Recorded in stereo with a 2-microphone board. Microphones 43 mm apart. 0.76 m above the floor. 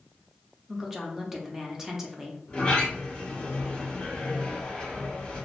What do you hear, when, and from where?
0.7 s a woman speaking: 10° right (ahead or behind), 0.6 m
2.5 s a sliding door: 25° left (ahead or behind), 1.1 m